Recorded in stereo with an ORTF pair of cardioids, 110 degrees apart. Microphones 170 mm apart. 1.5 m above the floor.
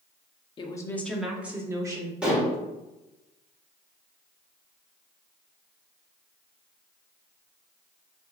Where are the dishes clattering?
5° right, 1.7 m.